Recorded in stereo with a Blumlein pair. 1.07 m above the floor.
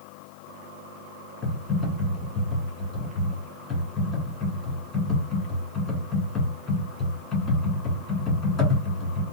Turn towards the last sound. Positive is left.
turn(degrees=20)